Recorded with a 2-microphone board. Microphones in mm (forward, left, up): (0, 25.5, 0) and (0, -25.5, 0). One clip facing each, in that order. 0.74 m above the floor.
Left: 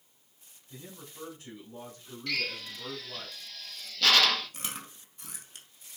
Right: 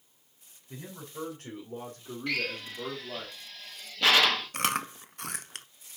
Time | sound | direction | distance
0.7 | a man speaking | 60° right (ahead or behind) | 2.5 m
2.3 | a drill | 20° right (ahead or behind) | 1.2 m
4.5 | chewing | 65° right (ahead or behind) | 0.6 m